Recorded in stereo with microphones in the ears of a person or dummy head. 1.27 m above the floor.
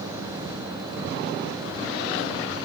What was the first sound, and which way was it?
Only background noise.